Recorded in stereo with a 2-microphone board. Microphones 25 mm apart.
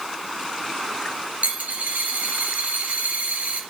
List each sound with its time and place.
1.4 s a dropped coin: 85° right, 3 m